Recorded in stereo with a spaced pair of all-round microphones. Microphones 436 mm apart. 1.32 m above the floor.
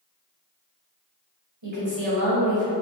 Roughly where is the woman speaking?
Right.